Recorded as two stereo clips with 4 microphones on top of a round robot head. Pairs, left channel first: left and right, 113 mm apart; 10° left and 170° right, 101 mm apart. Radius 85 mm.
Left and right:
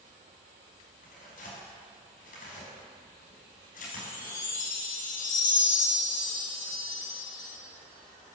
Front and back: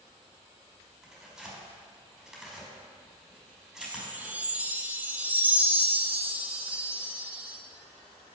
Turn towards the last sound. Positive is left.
turn(degrees=120)